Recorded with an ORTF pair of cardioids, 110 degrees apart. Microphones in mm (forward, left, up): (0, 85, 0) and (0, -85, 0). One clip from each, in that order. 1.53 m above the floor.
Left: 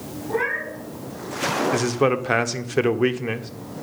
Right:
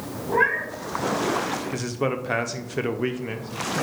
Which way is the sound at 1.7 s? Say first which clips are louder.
Left 6 dB; 25° left.